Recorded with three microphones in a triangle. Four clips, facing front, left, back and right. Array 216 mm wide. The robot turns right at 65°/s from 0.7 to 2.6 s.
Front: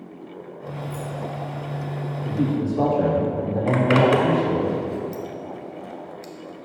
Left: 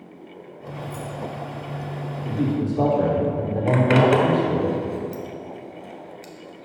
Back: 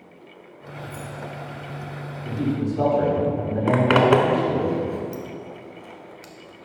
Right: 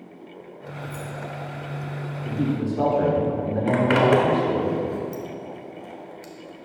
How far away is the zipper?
About 0.6 m.